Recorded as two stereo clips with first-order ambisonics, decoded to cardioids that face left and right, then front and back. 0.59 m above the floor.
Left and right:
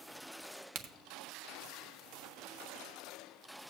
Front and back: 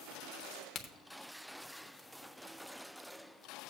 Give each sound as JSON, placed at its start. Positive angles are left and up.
{"t": 0.8, "sound": "a crack", "azimuth_deg": -65, "distance_m": 1.0}